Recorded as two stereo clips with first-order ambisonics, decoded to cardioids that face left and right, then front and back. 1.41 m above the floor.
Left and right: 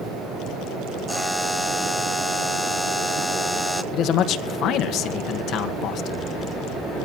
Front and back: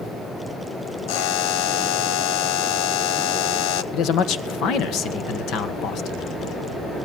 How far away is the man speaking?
About 1.3 m.